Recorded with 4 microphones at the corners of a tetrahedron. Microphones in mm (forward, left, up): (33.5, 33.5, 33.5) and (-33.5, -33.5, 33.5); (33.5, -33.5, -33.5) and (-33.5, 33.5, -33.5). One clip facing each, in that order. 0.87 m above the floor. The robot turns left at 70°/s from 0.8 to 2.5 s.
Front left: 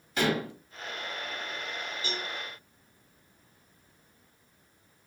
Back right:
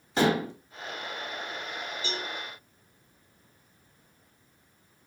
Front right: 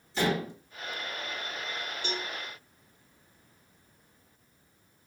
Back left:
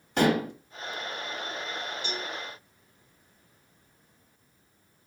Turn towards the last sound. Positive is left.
turn(degrees=-105)